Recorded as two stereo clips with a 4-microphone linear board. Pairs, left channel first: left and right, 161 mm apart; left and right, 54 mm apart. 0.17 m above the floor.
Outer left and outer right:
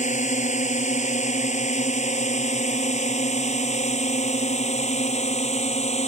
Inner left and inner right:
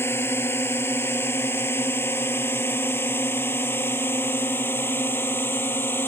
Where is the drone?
45° left (ahead or behind); by 6.1 s 40° left (ahead or behind).